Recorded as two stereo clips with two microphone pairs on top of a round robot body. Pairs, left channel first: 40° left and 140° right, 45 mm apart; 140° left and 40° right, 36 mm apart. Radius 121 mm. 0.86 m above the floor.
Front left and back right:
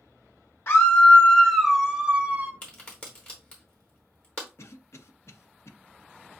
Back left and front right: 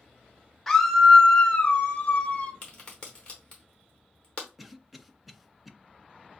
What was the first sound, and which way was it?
A scream, 60° left.